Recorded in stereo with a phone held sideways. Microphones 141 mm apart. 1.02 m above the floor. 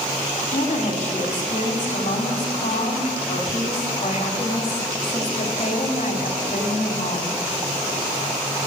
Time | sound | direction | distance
0.5 | a woman speaking | 55° left (ahead or behind) | 2.5 m